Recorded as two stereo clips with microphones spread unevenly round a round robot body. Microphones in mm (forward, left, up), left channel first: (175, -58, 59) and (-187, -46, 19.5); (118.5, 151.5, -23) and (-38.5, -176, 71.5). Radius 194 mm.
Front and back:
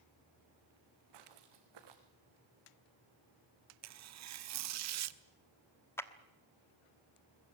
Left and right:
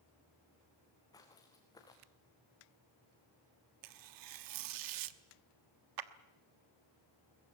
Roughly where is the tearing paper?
Behind right.